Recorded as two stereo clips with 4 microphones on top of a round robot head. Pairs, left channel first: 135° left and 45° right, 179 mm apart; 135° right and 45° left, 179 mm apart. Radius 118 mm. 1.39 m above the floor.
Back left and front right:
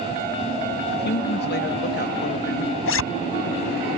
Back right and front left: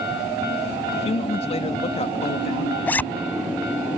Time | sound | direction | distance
0.9 | a man speaking | 165° left | ?
2.9 | a zipper | 140° left | ?